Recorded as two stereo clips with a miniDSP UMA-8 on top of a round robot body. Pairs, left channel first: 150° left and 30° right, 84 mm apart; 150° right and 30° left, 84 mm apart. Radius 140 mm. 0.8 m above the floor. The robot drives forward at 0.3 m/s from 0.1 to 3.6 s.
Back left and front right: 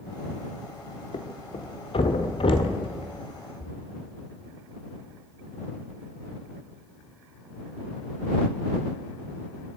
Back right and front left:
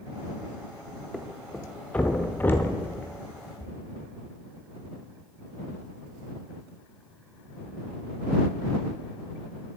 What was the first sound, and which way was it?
A thud, 120° left.